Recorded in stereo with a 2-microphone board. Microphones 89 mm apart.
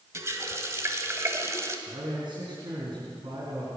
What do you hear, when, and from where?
0.1 s a running tap: 35° right (ahead or behind), 1.3 m
1.9 s a man speaking: 60° right (ahead or behind), 3.5 m